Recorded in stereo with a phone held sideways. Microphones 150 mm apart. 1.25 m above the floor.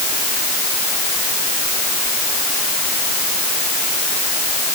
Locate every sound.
Only background noise.